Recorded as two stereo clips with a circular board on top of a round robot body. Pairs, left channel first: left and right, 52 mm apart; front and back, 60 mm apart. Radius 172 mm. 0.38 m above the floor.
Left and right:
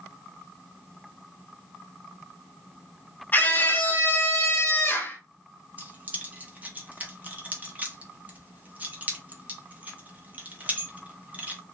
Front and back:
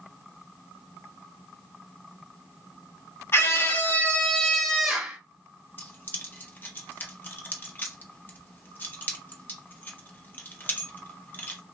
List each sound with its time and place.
3.3 s a scream: 45° left, 1.4 m; by 5.2 s 110° left, 1.2 m
5.8 s keys jangling: 45° right, 1.1 m